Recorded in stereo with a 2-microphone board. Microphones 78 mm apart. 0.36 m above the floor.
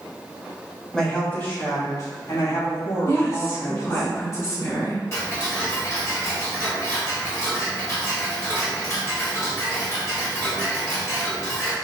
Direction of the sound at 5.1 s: 35° left (ahead or behind).